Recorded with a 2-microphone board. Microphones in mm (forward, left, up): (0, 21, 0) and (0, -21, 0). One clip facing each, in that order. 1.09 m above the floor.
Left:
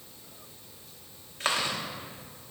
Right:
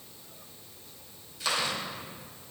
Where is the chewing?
40° left (ahead or behind), 1.1 m.